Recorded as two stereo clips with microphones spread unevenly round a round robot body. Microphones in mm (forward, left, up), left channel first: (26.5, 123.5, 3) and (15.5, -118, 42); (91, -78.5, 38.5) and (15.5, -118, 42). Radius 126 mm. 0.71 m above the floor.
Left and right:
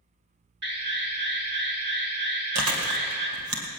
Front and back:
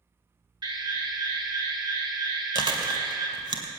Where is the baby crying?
I don't hear a baby crying.